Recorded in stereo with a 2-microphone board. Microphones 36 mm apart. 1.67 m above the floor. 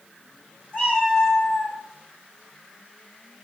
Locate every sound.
0.7 s a cat meowing: 25° left (ahead or behind), 1.5 m